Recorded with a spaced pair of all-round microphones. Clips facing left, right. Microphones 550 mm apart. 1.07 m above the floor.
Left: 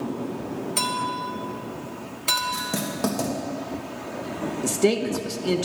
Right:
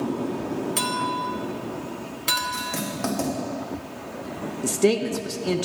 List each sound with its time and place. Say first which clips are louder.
0.8 s a clink: right 2 dB; 40° right (ahead or behind), 1.1 m
2.5 s writing: left 2 dB; 55° left (ahead or behind), 1.7 m
4.6 s a man speaking: right 1 dB; centre (ahead or behind), 0.7 m